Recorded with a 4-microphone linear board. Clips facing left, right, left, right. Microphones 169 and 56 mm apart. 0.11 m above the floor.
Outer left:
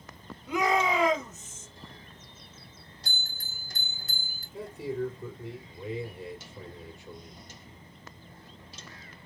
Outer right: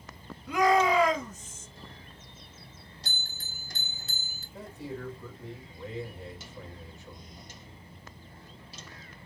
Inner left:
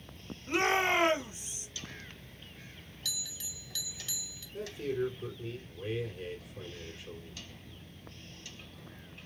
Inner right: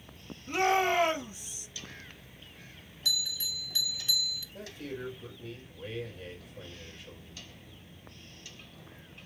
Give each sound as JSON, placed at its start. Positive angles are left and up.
{"t": 0.5, "sound": "a shout", "side_deg": 20, "distance_m": 2.0}
{"t": 3.0, "sound": "a bell", "side_deg": -25, "distance_m": 2.5}
{"t": 4.5, "sound": "a man speaking", "side_deg": 15, "distance_m": 4.0}